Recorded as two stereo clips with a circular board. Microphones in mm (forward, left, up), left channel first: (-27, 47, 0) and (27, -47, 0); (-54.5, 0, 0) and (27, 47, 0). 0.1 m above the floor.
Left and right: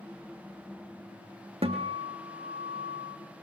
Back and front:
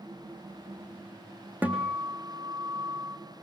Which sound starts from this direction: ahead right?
A guitar, at 1.6 s.